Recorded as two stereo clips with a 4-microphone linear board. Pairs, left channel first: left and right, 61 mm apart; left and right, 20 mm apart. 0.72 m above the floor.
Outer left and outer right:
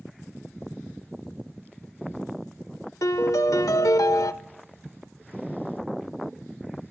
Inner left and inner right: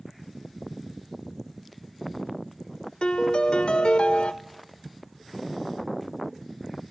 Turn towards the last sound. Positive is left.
turn(degrees=65)  # may be behind; listen again after turning